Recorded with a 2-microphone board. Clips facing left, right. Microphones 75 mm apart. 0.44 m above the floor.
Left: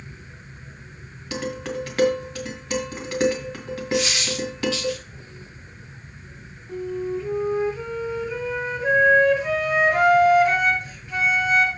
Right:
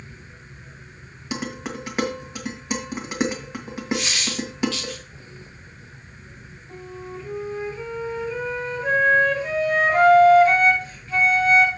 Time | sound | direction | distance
1.3 | dishes clattering | 20° right (ahead or behind) | 2 m
3.9 | a dropped coin | 15° left (ahead or behind) | 5 m
6.7 | a flute | 20° left (ahead or behind) | 7 m